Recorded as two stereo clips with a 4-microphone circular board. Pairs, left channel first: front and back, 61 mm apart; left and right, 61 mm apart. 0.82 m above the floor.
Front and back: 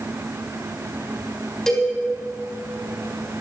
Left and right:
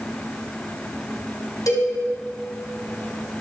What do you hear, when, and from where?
1.7 s a cowbell: 80° left, 5 m